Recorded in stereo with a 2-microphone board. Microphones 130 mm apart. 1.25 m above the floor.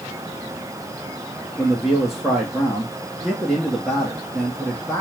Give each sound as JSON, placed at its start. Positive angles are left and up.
{"t": 1.6, "sound": "a man speaking", "side_deg": 0, "distance_m": 1.0}